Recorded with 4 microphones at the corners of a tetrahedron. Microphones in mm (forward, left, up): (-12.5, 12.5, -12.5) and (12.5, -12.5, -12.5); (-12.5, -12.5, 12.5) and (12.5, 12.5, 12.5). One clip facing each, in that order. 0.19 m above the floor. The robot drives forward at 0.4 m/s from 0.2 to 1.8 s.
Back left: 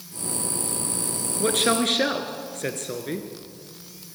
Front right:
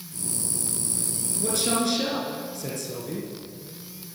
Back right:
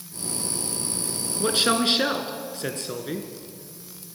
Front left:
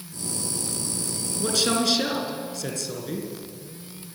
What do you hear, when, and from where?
1.4 s a man speaking: 165° left, 3 m